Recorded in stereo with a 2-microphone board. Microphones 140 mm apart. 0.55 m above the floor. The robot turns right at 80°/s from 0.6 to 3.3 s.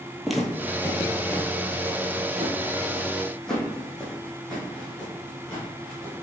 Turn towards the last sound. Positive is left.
turn(degrees=10)  # may be behind; listen again after turning